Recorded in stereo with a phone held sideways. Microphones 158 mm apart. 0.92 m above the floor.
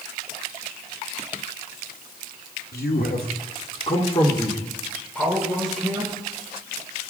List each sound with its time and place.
2.7 s a man speaking: 80° left, 2.5 m; by 6.1 s 5° right (ahead or behind), 4 m